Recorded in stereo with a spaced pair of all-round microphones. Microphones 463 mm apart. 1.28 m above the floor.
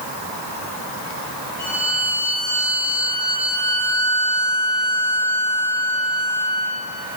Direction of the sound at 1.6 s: 75° right (ahead or behind).